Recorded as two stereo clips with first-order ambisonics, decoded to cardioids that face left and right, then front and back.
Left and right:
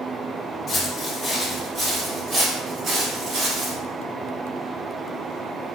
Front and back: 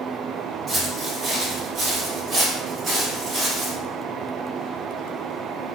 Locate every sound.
0.7 s footsteps: 120° left, 1.0 m; by 3.8 s 115° right, 1.6 m